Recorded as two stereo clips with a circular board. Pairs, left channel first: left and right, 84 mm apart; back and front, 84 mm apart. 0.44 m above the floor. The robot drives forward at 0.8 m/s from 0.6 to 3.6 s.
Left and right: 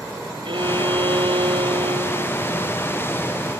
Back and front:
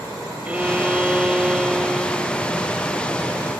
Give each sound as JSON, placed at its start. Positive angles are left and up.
{"t": 0.5, "sound": "a violin", "azimuth_deg": -75}